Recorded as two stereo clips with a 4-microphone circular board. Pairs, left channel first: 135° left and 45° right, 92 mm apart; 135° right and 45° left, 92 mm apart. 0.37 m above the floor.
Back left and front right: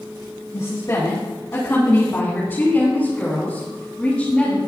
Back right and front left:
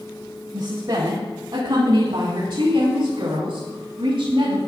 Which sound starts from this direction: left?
A woman speaking, at 0.5 s.